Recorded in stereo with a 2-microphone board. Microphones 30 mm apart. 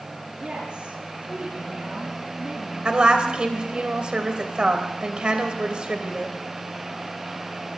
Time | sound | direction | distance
0.4 | a woman speaking | 40° right (ahead or behind) | 7 m
2.9 | a woman speaking | 30° right (ahead or behind) | 2.5 m